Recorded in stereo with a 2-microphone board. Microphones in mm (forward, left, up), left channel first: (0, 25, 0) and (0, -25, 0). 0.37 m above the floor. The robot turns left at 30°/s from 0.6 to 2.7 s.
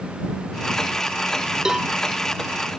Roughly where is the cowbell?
Centre.